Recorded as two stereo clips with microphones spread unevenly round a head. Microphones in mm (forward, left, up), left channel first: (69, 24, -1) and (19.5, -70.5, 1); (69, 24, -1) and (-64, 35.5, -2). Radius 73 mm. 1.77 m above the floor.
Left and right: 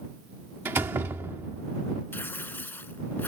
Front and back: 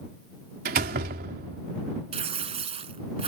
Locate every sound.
0.7 s a door slam: 170° left
2.1 s tearing paper: 140° left